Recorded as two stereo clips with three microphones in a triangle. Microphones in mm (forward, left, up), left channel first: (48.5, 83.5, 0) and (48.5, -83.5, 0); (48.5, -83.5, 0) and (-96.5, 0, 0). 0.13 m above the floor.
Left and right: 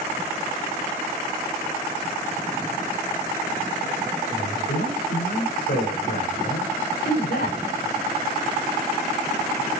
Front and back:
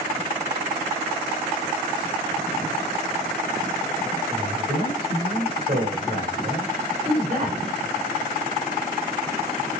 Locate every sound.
4.3 s a man speaking: 100° left, 9.5 m